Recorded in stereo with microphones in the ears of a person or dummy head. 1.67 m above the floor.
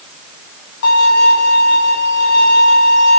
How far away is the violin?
About 2.5 m.